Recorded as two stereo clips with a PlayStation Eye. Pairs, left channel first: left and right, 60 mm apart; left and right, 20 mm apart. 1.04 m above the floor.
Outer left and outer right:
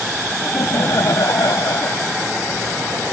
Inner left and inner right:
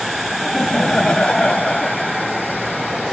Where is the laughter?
70° left (ahead or behind); by 2.1 s 80° left.